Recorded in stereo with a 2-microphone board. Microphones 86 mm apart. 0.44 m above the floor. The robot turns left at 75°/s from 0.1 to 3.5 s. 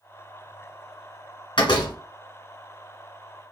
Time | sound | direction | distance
1.6 | a door slam | 70° left (ahead or behind) | 1.3 m